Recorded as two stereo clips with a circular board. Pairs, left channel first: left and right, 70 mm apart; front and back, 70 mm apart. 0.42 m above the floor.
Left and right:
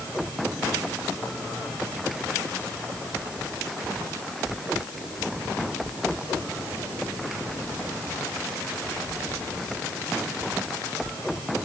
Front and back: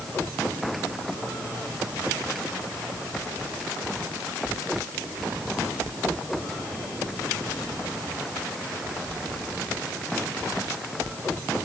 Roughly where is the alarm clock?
No alarm clock in this recording.